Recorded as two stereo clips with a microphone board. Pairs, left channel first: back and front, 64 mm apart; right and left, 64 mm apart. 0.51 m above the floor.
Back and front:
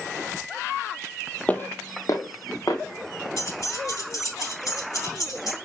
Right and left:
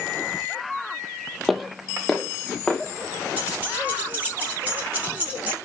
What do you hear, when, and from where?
1.5 s footsteps: 175° left, 0.5 m; by 3.3 s 175° right, 1.8 m
3.4 s keys jangling: 150° left, 3 m